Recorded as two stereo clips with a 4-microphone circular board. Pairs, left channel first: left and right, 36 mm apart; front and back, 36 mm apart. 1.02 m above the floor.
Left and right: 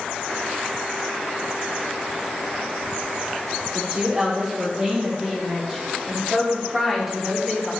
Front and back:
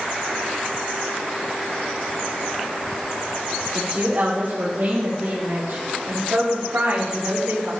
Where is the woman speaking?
155° right, 2.5 m; by 7.7 s straight behind, 5 m.